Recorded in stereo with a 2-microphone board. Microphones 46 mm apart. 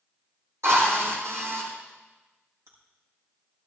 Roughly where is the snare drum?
I don't hear a snare drum.